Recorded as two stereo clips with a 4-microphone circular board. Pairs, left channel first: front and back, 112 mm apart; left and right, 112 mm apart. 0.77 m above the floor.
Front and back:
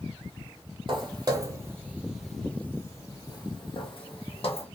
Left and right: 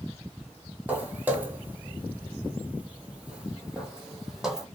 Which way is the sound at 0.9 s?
160° right.